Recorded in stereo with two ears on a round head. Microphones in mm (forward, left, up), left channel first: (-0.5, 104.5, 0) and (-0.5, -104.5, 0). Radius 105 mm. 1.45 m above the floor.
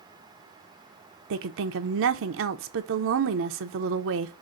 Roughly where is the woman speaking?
Right.